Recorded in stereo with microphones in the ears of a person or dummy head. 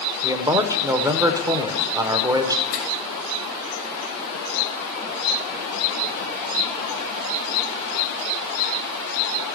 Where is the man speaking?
15° right (ahead or behind), 0.6 m.